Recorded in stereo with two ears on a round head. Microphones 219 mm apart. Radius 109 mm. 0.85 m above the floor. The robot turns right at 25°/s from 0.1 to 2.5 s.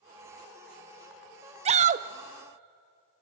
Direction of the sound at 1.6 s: 25° right (ahead or behind).